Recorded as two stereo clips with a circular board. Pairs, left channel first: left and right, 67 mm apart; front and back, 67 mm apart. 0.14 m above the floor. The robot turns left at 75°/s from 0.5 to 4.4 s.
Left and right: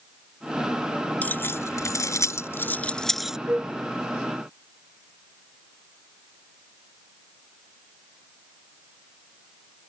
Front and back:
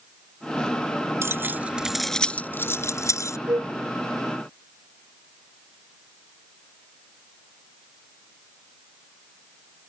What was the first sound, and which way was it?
Keys jangling, 150° left.